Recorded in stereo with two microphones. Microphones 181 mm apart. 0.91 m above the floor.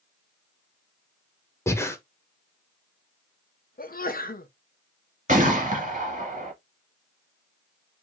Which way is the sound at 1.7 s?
15° left (ahead or behind).